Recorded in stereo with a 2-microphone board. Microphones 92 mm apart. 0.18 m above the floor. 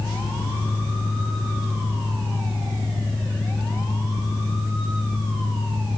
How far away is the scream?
No scream in this recording.